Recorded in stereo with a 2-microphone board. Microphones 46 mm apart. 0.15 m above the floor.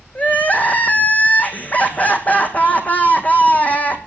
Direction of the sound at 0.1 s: 35° left (ahead or behind).